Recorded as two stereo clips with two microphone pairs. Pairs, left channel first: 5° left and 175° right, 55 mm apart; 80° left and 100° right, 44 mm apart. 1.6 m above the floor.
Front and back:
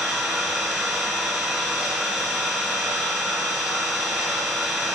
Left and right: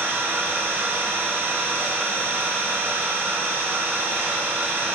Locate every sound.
0.0 s an engine running: 110° right, 1.9 m